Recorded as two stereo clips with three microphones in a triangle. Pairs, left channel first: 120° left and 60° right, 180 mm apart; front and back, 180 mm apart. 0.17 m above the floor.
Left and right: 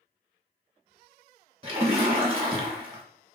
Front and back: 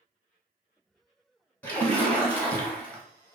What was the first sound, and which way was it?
A splash, 70° right.